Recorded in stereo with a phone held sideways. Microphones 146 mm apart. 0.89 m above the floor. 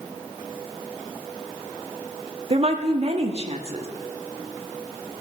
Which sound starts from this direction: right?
A woman speaking, at 2.5 s.